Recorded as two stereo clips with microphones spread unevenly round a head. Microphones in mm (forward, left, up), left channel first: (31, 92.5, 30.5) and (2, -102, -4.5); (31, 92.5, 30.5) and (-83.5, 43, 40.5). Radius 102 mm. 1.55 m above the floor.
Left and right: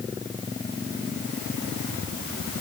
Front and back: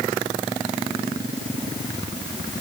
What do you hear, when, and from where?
Only background noise.